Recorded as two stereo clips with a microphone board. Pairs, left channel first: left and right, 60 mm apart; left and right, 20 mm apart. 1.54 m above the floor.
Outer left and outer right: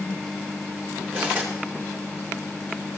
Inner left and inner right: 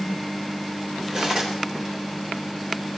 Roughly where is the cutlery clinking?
Right.